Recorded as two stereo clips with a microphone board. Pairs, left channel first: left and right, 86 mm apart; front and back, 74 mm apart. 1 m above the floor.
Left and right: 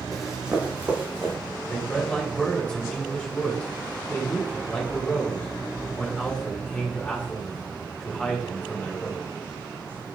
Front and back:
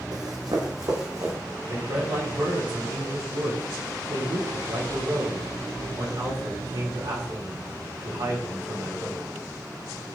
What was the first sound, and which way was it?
Running footsteps, straight behind.